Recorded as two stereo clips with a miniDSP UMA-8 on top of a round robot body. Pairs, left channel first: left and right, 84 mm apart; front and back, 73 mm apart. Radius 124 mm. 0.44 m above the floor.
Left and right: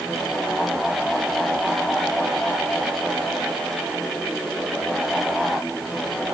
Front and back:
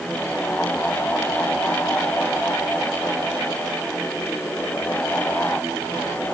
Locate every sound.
Only background noise.